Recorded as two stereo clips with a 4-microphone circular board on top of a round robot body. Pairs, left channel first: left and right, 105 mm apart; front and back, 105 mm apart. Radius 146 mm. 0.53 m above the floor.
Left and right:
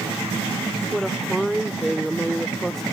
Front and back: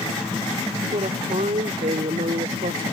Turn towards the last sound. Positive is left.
turn(degrees=175)